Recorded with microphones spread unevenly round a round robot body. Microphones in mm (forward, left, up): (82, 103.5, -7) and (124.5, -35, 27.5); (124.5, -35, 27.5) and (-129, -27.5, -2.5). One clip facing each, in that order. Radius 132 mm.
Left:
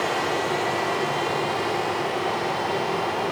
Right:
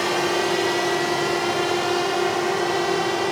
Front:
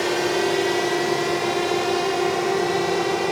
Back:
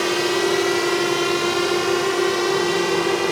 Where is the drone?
110° right; by 3.3 s 115° right.